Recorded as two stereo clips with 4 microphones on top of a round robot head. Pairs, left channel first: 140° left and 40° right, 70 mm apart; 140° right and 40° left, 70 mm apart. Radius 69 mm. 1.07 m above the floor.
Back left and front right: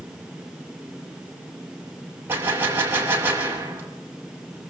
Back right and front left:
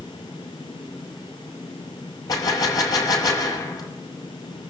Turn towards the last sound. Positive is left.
turn(degrees=-100)